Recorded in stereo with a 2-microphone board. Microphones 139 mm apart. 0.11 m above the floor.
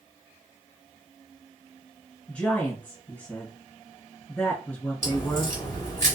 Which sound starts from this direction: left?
A crack, at 5.0 s.